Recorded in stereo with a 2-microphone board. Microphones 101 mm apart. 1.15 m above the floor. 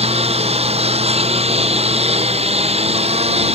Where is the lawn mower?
85° right.